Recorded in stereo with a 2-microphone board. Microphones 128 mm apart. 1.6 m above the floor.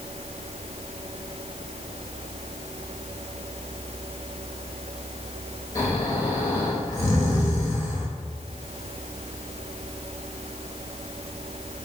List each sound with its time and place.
5.8 s snoring: 20° left (ahead or behind), 1.0 m